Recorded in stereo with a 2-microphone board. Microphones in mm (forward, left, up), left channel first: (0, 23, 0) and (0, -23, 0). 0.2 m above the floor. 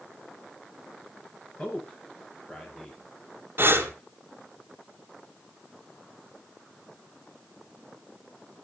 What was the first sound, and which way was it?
A man speaking, 25° left (ahead or behind).